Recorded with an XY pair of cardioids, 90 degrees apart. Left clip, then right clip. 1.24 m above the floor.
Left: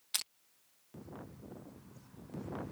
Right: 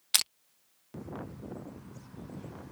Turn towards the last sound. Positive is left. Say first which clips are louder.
# right 10 dB
turn(degrees=-70)